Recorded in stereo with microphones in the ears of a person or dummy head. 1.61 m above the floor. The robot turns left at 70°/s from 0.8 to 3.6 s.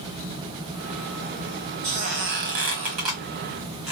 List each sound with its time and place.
1.8 s a squeak: 60° right, 1.2 m; by 3.9 s straight behind, 1.2 m